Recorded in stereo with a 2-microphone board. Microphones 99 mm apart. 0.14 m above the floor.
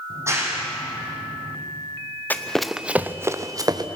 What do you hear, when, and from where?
0.1 s a clap: 30° right (ahead or behind), 5.5 m
2.3 s running footsteps: 20° left (ahead or behind), 1.1 m; by 3.9 s 40° right (ahead or behind), 1.8 m